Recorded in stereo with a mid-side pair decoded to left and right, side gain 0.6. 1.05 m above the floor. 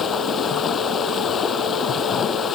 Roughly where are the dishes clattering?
No dishes clattering in this recording.